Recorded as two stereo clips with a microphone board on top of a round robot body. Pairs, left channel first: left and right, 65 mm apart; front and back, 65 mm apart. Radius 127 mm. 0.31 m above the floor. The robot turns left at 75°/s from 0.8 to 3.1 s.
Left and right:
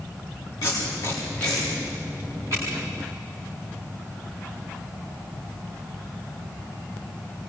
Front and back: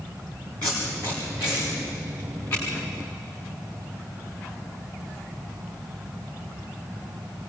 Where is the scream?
I don't hear a scream.